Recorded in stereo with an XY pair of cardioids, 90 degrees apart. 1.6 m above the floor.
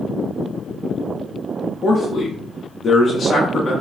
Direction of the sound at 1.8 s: 50° left.